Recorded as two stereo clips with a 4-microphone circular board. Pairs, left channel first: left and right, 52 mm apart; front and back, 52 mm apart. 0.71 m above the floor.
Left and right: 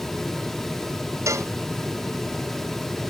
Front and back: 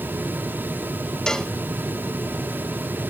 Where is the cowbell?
80° right.